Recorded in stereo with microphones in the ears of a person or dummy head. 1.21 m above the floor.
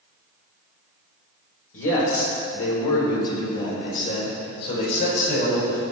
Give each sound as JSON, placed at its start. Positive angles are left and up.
{"t": 1.7, "sound": "a man speaking", "side_deg": 80, "distance_m": 4.0}